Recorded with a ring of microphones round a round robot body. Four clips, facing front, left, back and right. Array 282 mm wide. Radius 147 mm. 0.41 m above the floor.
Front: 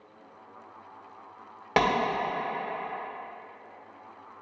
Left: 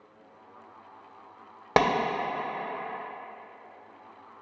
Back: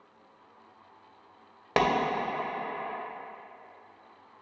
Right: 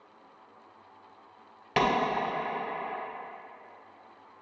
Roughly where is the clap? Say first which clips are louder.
Left 3 dB, front 1 dB; left.